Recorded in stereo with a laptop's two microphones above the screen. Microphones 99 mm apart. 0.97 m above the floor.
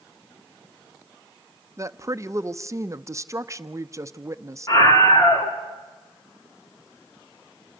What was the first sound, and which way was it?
A woman speaking, 30° right (ahead or behind).